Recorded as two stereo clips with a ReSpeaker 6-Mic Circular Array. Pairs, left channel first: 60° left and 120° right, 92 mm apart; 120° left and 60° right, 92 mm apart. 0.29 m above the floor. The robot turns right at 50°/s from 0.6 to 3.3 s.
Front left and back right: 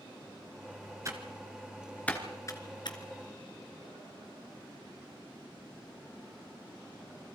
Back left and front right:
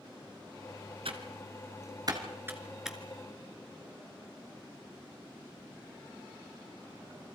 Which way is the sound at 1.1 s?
65° right.